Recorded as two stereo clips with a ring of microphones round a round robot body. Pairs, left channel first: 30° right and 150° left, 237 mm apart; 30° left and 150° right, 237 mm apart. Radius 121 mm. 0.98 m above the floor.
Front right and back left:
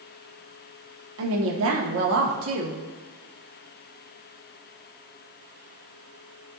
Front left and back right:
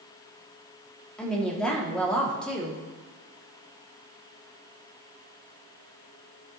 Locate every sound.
1.2 s a woman speaking: 115° left, 1.9 m